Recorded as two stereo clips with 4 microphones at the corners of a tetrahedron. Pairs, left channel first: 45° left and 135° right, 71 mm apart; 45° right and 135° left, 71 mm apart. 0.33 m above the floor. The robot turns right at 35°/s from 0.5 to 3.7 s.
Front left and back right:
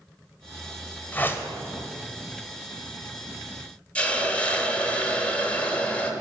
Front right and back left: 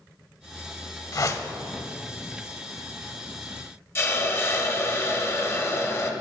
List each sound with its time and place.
1.1 s a whoosh: 15° right, 0.5 m; by 1.5 s 5° right, 0.5 m
4.0 s a hiss: 20° right, 0.6 m